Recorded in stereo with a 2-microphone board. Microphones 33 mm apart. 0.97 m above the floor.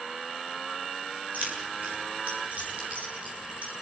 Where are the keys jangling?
55° right (ahead or behind), 9 m; by 3.7 s 50° right (ahead or behind), 7.5 m.